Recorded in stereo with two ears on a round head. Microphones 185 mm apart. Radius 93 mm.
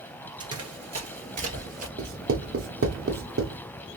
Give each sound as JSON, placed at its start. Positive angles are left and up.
{"t": 0.4, "sound": "running footsteps", "side_deg": -25, "distance_m": 1.9}
{"t": 2.0, "sound": "writing", "side_deg": -65, "distance_m": 1.0}